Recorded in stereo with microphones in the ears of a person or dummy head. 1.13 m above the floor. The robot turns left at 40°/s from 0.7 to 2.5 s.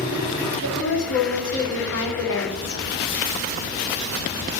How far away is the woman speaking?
About 1.2 m.